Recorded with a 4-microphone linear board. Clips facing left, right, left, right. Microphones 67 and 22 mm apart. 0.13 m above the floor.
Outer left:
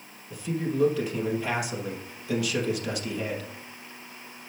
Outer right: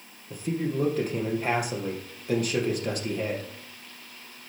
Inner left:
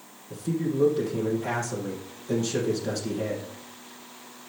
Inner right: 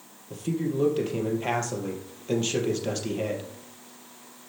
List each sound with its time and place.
0.3 s a man speaking: 40° right (ahead or behind), 3.5 m